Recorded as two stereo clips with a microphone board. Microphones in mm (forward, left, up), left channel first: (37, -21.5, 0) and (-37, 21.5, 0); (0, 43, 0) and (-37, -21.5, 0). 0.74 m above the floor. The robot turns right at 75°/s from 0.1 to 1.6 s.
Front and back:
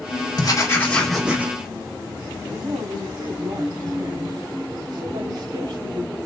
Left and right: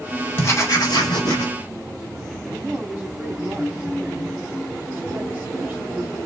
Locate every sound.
0.4 s writing: 5° left, 2 m; by 1.5 s 85° left, 2 m
2.5 s a woman speaking: 165° left, 2.5 m